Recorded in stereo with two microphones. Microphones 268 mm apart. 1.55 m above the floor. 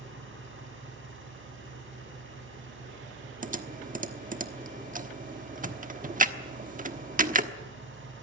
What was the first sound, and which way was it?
An engine running, 50° right (ahead or behind).